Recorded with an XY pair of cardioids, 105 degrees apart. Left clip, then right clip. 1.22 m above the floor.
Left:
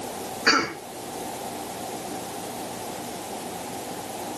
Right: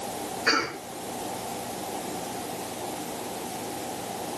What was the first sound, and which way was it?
A cough, 40° left.